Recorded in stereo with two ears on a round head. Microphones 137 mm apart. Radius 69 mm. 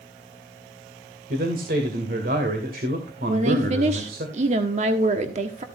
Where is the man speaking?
65° right (ahead or behind), 2.5 m.